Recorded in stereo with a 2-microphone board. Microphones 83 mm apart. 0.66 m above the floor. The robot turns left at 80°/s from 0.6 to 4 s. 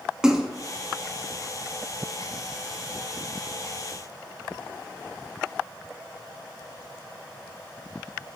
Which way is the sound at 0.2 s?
10° right (ahead or behind).